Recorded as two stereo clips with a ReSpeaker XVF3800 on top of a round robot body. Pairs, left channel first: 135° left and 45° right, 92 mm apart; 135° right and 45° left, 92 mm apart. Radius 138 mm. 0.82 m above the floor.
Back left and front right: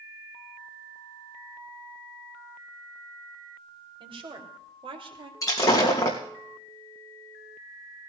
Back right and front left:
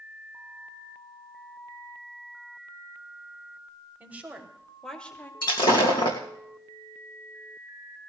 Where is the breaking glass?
170° right, 2.5 m.